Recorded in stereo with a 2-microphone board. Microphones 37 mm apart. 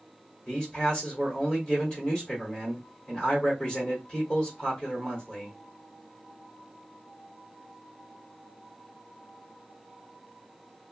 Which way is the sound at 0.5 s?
25° left (ahead or behind).